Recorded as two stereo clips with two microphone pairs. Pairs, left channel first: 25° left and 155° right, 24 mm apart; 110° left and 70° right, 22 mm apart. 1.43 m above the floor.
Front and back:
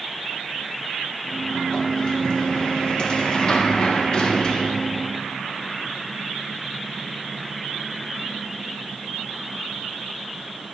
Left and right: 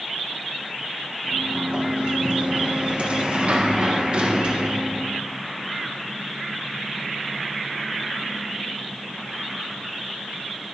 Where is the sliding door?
35° right, 1.4 m.